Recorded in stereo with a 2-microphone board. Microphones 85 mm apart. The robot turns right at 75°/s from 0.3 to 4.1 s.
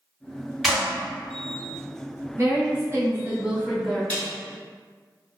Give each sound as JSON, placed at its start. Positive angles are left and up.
{"t": 0.6, "sound": "a clap", "side_deg": -5, "distance_m": 1.3}
{"t": 2.4, "sound": "a woman speaking", "azimuth_deg": -105, "distance_m": 1.0}
{"t": 4.1, "sound": "a snare drum", "side_deg": 15, "distance_m": 1.3}